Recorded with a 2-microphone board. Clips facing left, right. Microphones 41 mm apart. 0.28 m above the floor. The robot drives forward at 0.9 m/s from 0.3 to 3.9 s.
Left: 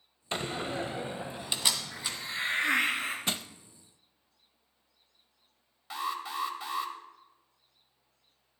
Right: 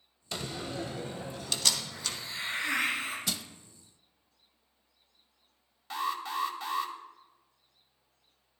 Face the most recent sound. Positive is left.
turn(degrees=5)  # may be behind; listen again after turning